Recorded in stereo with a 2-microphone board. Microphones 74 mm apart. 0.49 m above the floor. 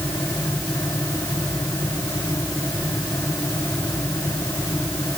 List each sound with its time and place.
Only background noise.